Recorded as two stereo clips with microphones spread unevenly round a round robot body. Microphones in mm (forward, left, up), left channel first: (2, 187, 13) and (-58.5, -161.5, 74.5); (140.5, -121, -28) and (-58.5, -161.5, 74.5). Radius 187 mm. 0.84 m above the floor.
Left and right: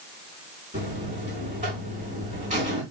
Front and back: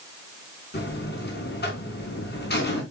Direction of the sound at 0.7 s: 30° right.